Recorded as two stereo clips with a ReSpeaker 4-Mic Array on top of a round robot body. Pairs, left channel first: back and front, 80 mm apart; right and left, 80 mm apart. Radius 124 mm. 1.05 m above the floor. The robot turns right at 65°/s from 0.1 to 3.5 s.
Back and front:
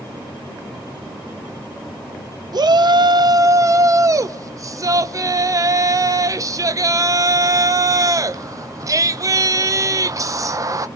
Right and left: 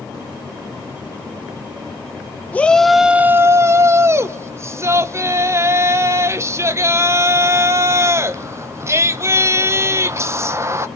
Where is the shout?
25° right, 1.2 m; by 10.9 s 40° left, 1.2 m.